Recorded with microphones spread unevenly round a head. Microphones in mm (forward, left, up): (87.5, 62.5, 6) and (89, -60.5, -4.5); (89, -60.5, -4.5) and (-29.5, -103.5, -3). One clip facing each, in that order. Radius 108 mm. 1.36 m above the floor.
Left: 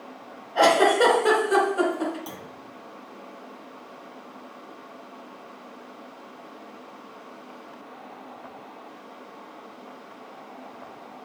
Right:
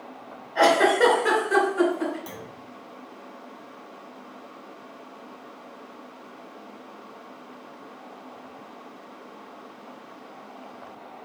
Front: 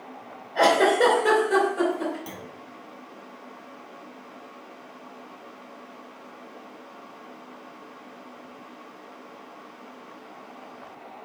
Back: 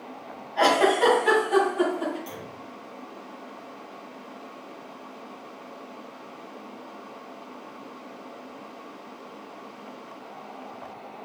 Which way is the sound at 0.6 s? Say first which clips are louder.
Left 1 dB, front 1 dB; 30° left.